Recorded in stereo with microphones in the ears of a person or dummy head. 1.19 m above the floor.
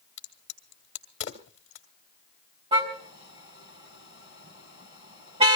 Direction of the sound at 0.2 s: 40° left (ahead or behind).